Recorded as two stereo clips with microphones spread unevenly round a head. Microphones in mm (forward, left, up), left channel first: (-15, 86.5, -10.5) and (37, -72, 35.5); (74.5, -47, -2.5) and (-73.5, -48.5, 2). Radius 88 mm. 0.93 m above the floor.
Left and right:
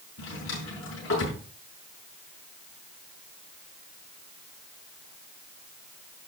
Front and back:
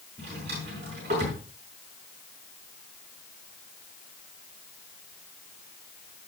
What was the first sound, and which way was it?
A drawer, 125° left.